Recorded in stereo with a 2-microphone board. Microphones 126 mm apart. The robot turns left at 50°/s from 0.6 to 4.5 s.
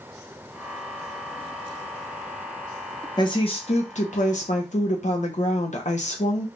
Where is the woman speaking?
145° left, 0.8 m; by 6.5 s 80° left, 0.8 m.